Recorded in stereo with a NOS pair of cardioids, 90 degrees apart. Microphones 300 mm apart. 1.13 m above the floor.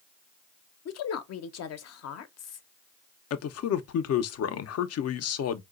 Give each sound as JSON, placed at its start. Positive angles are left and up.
{"t": 0.8, "sound": "a woman speaking", "azimuth_deg": 60, "distance_m": 0.7}
{"t": 3.3, "sound": "a man speaking", "azimuth_deg": 60, "distance_m": 0.6}